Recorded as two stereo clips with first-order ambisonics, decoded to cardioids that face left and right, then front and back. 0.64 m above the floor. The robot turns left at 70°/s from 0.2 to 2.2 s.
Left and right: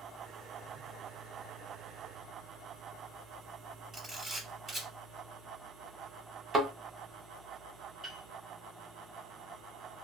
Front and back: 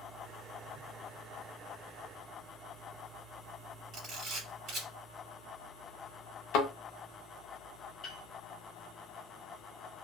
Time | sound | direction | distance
3.9 | a camera shutter | 160° right | 1.6 m
6.5 | a thud | 25° right | 0.6 m
8.0 | a piano | 30° right | 1.1 m